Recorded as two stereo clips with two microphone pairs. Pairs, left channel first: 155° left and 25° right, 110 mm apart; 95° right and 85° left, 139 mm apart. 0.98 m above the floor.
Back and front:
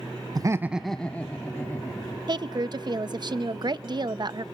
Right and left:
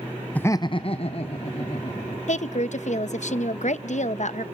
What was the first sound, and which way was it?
Laughter, 25° right.